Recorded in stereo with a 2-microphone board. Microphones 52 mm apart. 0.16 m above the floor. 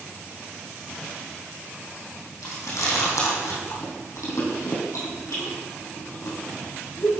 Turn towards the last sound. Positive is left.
turn(degrees=80)